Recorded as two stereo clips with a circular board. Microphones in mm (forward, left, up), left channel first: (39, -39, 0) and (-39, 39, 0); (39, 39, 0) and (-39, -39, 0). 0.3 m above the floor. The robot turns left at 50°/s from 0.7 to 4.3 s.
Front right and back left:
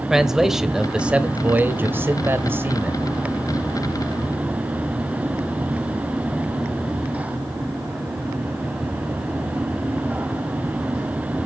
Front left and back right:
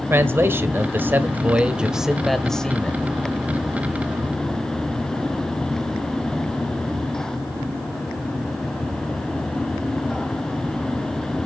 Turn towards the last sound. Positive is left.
turn(degrees=30)